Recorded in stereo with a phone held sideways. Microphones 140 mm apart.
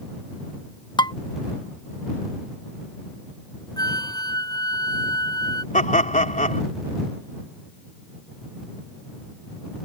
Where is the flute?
30° left (ahead or behind).